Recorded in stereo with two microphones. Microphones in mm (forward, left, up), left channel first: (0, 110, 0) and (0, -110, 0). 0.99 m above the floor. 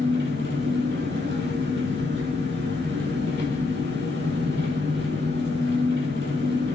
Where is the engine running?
60° right (ahead or behind), 7 m.